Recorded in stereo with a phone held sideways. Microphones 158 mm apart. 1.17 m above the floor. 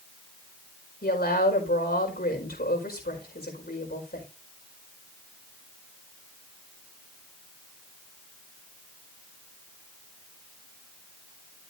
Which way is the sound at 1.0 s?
75° left (ahead or behind).